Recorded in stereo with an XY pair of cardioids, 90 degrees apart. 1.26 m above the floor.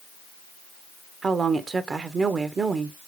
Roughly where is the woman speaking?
Ahead right.